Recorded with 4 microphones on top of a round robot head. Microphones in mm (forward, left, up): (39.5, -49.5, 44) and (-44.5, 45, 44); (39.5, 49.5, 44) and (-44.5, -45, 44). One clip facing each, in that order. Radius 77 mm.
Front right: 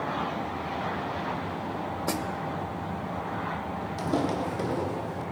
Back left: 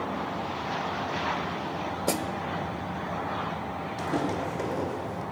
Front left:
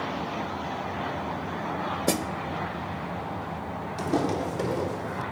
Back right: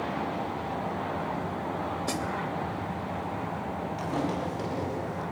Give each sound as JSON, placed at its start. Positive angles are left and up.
{"t": 2.1, "sound": "a snare drum", "azimuth_deg": 65, "distance_m": 0.7}
{"t": 4.0, "sound": "footsteps", "azimuth_deg": -5, "distance_m": 1.9}